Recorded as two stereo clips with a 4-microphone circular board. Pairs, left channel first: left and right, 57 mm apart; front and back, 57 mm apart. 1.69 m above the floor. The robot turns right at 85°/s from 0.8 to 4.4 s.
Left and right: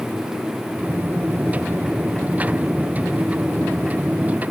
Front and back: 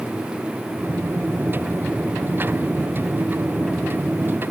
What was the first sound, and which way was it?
Only background noise.